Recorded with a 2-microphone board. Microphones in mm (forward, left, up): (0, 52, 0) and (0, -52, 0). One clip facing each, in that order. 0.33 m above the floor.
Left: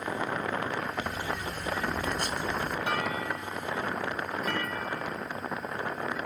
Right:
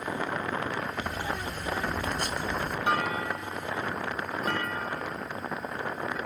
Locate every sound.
1.0 s a bird: 50° right (ahead or behind), 1.4 m
2.9 s a clunk: 40° right (ahead or behind), 3 m